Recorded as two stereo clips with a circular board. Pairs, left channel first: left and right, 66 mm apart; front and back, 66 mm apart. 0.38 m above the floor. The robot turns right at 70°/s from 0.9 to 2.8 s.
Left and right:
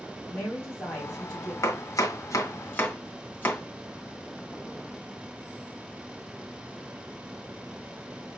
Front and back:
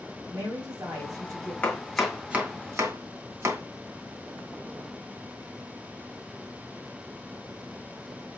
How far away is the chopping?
About 1.3 m.